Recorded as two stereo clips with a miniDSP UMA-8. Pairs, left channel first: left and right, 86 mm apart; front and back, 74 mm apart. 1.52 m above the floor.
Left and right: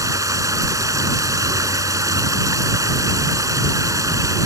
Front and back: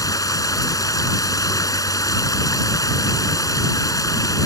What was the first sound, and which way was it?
Running water, 40° right.